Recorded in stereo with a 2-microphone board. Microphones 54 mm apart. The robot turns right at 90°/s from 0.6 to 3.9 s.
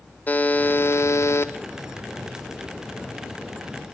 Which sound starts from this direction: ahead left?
A buzzer, at 0.3 s.